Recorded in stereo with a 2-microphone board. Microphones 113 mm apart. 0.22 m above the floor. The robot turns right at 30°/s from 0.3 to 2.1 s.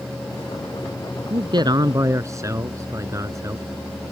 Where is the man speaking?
50° right (ahead or behind); by 3.6 s 30° right (ahead or behind).